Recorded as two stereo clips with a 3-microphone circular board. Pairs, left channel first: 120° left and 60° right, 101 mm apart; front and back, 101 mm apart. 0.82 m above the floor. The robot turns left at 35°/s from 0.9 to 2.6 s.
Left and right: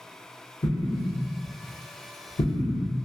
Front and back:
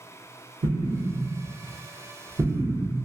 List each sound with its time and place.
0.6 s an explosion: 175° left, 0.7 m; by 2.9 s 115° left, 0.7 m